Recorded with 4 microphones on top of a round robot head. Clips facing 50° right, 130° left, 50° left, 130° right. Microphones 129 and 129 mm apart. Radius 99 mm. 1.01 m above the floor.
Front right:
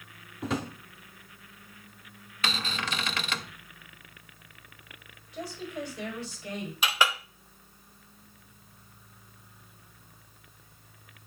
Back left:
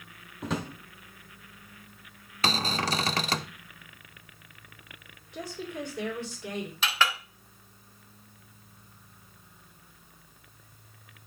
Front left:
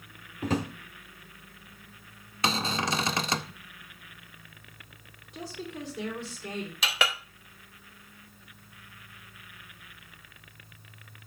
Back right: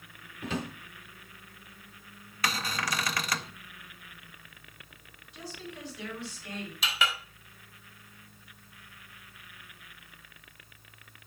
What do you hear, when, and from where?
0.4 s a drawer: 40° left, 0.7 m
2.4 s a cupboard door: 100° left, 0.6 m
5.3 s a woman speaking: 95° left, 2.5 m
6.8 s a clink: 25° left, 0.8 m